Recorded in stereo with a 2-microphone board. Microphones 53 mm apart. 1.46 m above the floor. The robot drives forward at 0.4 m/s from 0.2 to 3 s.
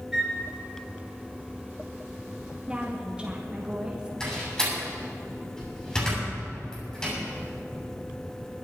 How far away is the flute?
About 4 m.